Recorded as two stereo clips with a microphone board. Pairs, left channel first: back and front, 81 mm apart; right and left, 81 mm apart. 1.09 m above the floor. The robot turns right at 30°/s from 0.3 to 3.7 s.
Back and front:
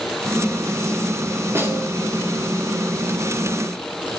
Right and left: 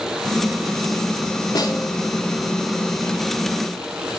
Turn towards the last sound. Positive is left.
turn(degrees=5)